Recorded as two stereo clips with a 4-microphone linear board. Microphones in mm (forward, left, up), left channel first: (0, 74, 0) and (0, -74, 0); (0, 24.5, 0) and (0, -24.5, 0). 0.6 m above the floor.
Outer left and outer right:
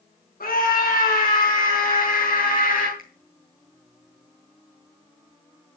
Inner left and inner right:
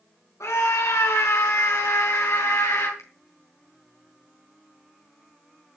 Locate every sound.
0.4 s a scream: 75° left (ahead or behind), 5 m; by 2.9 s 65° left (ahead or behind), 3.5 m
3.0 s a finger snap: 75° left (ahead or behind), 3.5 m